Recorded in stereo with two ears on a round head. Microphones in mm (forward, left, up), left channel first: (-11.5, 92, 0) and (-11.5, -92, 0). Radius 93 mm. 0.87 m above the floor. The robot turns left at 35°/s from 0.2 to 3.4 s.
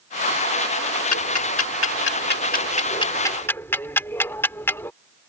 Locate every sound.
1.1 s ticking: 85° left; by 4.9 s 10° left (ahead or behind)